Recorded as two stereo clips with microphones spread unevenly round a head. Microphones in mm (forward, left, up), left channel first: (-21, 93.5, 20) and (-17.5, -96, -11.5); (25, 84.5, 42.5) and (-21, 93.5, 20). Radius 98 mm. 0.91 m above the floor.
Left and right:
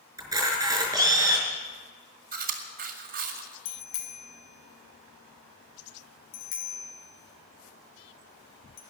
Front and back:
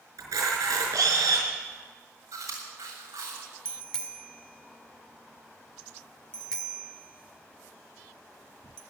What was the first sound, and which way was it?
A camera shutter, 165° right.